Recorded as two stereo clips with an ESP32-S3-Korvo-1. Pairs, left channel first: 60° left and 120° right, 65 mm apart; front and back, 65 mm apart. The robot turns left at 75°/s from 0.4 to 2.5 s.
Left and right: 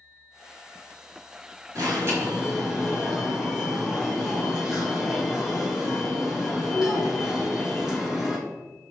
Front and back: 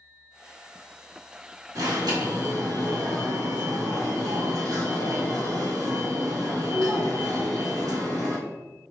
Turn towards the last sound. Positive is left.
turn(degrees=160)